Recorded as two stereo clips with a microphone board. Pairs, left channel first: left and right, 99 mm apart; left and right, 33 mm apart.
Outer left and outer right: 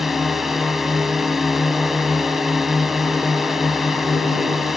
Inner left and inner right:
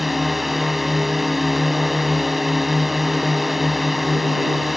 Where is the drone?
Centre (ahead or behind).